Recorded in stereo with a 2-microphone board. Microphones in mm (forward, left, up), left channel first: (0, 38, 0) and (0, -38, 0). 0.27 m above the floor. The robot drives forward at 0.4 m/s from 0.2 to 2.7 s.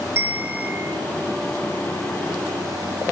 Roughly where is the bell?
Right.